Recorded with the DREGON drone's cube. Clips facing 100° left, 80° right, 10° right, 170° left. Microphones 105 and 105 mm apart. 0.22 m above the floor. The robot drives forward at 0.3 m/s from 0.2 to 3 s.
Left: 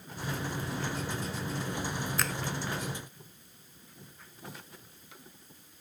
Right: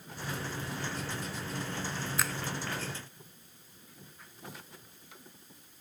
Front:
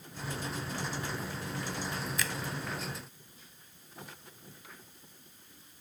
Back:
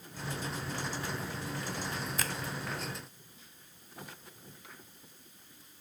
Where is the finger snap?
160° right; by 2.4 s 165° right.